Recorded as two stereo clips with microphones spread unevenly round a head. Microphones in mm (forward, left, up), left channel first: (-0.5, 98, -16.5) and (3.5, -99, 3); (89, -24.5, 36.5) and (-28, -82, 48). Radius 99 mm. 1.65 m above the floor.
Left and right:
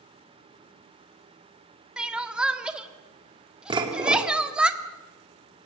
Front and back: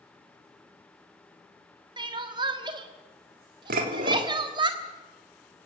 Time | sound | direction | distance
2.0 | crying | 160° right | 1.3 m
3.7 | dishes clattering | 155° right | 3 m